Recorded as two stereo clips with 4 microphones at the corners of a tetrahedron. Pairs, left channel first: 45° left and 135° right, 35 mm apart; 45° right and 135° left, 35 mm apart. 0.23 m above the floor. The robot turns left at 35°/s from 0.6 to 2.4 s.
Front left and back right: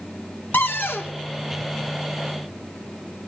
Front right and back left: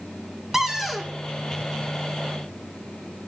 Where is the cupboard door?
60° left, 0.9 m; by 1.1 s 40° left, 0.9 m.